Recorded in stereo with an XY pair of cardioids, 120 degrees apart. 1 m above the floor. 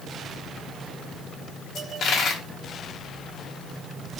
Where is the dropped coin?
60° left, 1.1 m.